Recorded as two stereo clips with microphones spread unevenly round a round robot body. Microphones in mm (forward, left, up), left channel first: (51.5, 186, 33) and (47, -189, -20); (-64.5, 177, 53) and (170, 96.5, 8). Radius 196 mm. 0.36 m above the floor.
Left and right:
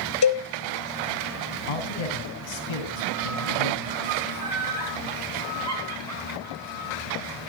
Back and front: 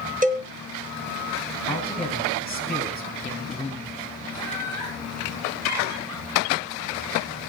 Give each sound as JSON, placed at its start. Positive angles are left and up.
{"t": 0.2, "sound": "a cowbell", "azimuth_deg": 40, "distance_m": 1.8}
{"t": 1.7, "sound": "a man speaking", "azimuth_deg": 80, "distance_m": 3.5}
{"t": 4.3, "sound": "laughter", "azimuth_deg": -45, "distance_m": 4.0}